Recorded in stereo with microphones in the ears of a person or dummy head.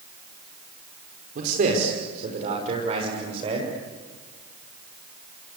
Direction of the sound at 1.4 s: 50° right (ahead or behind).